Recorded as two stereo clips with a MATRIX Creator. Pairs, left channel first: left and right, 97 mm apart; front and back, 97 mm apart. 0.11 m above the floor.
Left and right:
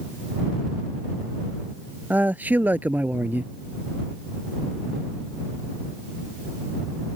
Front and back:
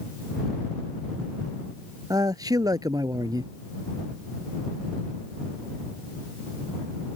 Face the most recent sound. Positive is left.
turn(degrees=-155)